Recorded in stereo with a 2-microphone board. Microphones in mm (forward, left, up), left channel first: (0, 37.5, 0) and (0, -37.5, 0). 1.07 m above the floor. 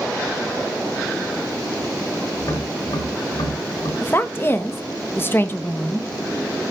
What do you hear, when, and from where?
2.4 s tapping: 75° left (ahead or behind), 7.5 m
4.0 s a woman speaking: 30° left (ahead or behind), 0.9 m